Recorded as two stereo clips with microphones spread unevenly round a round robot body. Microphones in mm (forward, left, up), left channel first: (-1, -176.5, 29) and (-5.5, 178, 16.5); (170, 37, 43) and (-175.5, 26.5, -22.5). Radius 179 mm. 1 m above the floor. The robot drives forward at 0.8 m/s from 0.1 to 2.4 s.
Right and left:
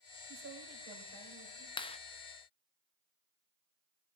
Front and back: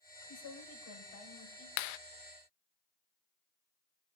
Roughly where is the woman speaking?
Ahead left.